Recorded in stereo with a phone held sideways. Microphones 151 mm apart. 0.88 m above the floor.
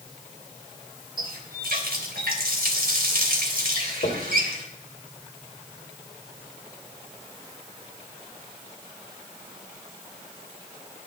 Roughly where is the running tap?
Right.